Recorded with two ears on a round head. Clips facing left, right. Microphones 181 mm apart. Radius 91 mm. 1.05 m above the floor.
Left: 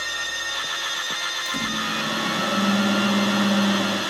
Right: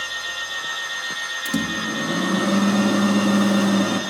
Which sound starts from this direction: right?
A microwave, at 1.4 s.